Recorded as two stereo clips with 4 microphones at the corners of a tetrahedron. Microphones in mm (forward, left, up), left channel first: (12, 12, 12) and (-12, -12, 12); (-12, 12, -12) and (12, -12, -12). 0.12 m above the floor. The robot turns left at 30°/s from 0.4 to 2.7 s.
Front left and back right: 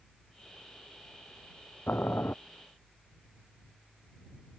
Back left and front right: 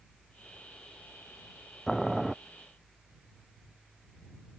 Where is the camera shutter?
I don't hear a camera shutter.